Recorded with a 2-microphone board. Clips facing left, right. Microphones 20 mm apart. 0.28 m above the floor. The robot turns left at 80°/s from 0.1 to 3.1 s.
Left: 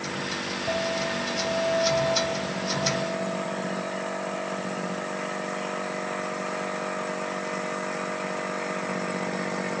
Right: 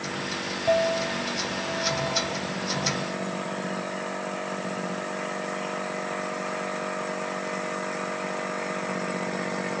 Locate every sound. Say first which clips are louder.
0.7 s a clink: right 5 dB; 150° right, 2.5 m; by 4.7 s 15° left, 2.5 m